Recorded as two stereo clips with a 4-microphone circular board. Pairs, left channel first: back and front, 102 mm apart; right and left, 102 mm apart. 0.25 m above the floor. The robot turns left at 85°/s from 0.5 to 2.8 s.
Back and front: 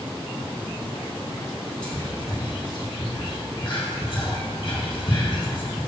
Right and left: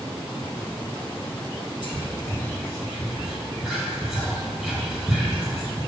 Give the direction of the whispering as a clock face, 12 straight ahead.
4 o'clock.